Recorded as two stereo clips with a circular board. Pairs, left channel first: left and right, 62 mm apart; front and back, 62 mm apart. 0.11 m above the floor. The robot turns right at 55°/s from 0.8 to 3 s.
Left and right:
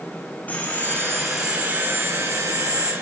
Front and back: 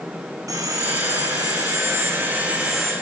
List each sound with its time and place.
0.5 s sawing: 155° left, 4 m; by 2.9 s 85° right, 4 m